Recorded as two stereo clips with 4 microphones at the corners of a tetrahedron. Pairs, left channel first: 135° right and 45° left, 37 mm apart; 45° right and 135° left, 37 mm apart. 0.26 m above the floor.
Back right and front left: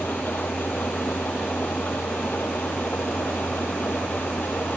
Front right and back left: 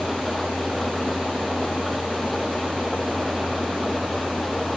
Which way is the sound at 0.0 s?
135° right.